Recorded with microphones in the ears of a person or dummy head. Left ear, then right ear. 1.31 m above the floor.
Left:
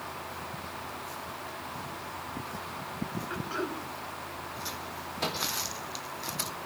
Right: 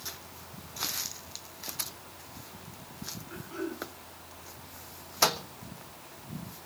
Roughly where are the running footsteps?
I don't hear running footsteps.